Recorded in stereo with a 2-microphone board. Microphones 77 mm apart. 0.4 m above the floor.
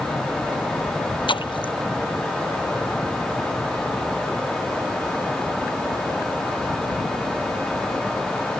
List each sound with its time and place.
1.3 s a splash: 80° left